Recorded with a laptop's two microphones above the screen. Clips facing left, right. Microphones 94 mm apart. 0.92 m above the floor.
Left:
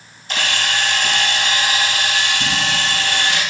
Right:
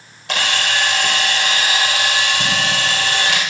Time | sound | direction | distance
0.3 | a camera shutter | 85° right | 2.5 m